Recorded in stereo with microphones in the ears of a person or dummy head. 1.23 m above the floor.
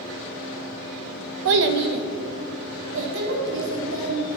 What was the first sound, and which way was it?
A child speaking, 70° right (ahead or behind).